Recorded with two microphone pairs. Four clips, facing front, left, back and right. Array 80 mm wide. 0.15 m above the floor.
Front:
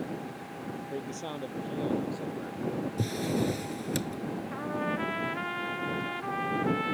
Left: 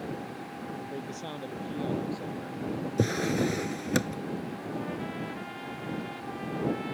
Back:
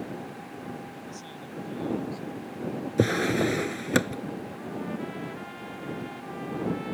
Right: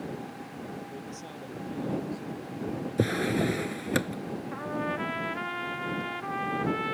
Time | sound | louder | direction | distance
0.8 | a man speaking | left 3 dB, front 4 dB | 20° left | ?
3.0 | a drawer | right 1 dB, back 9 dB | 175° right | ?
4.5 | a trumpet | right 3 dB, front 3 dB | 50° right | ?